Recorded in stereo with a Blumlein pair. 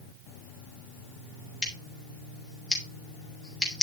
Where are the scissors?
Straight ahead, 3.5 m.